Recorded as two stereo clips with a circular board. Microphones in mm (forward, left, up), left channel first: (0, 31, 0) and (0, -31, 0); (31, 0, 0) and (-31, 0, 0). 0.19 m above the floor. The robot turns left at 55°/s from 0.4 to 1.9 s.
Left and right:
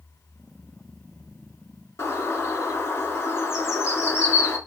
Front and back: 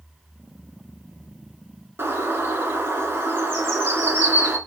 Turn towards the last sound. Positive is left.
turn(degrees=130)